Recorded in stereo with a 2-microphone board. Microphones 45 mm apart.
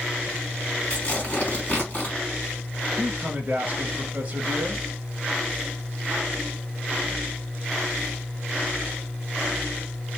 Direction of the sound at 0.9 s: 25° left (ahead or behind).